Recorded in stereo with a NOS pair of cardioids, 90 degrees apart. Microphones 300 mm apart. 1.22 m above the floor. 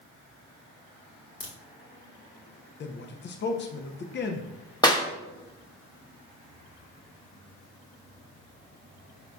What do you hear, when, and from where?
1.4 s a crack: 40° left, 1.5 m
2.8 s a man speaking: 35° left, 0.6 m
4.8 s a clap: 15° left, 0.9 m